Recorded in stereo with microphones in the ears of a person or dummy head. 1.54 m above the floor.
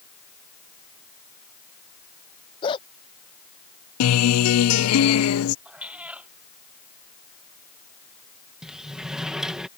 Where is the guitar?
85° left.